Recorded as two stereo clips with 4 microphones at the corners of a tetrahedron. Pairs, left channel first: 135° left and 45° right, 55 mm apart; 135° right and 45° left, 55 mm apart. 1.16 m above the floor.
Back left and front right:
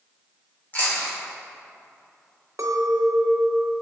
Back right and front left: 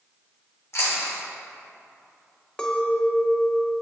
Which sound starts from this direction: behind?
Chewing, at 0.7 s.